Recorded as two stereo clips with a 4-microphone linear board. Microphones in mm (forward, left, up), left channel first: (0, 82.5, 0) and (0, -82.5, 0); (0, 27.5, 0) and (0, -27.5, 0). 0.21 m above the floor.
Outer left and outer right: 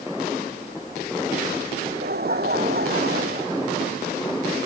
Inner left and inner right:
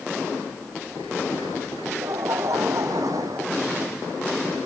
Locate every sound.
1.8 s laughter: 80° right; by 4.0 s 75° right (ahead or behind)